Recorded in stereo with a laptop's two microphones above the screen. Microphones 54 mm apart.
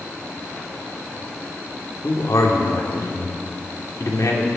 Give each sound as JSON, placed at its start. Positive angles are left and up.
{"t": 2.0, "sound": "a man speaking", "side_deg": 80, "distance_m": 2.5}